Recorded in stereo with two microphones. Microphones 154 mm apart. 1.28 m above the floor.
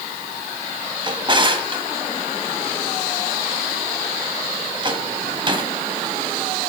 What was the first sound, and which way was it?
A drawer, 35° right (ahead or behind).